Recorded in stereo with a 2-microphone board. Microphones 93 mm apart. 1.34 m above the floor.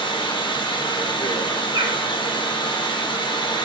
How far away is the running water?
About 0.7 m.